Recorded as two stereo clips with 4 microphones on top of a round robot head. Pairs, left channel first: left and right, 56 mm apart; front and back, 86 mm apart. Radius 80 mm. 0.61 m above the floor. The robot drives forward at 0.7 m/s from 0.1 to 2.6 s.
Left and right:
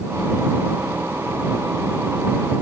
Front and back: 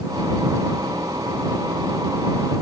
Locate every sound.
Only background noise.